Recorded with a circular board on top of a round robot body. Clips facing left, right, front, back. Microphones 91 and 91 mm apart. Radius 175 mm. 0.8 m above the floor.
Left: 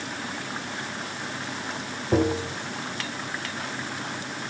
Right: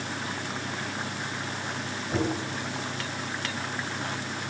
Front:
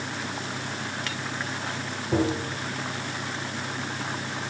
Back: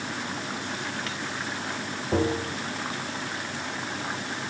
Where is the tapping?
95° left, 0.7 m.